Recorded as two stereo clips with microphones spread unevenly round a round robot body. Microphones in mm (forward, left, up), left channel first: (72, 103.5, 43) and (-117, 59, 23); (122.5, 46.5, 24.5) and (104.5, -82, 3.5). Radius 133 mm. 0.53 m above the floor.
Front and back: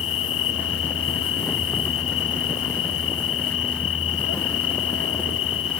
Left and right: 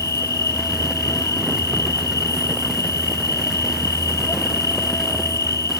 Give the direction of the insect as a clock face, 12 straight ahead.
11 o'clock.